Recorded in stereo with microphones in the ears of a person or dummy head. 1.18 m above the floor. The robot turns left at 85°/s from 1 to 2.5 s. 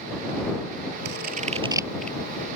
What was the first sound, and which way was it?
Scissors, 75° right (ahead or behind).